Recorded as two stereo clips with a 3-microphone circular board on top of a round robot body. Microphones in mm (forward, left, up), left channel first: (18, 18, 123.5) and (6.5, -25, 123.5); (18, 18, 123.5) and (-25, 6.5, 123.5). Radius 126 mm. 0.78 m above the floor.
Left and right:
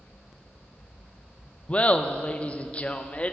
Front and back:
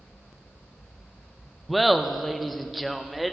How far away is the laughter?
About 0.6 m.